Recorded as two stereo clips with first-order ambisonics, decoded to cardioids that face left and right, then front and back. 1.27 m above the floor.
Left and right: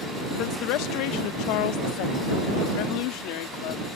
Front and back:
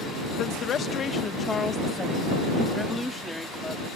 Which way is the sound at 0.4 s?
55° left.